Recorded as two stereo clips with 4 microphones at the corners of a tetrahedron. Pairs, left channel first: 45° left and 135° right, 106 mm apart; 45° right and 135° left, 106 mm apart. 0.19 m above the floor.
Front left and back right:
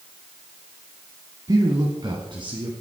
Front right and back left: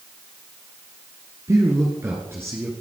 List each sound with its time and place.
1.5 s a man speaking: 175° right, 1.7 m; by 2.7 s 155° right, 2 m